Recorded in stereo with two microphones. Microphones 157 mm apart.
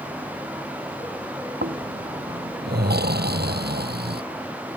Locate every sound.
1.6 s snoring: 80° right